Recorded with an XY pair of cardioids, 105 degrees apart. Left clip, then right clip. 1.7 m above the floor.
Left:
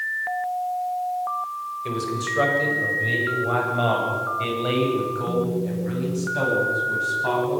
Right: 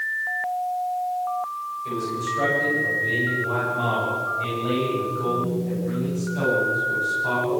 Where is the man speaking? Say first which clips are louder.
Left 1 dB; 60° left, 8 m; by 7.6 s 50° left, 13.5 m.